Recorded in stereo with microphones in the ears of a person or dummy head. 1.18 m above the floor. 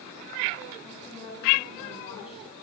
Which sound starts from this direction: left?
A woman speaking, at 0.8 s.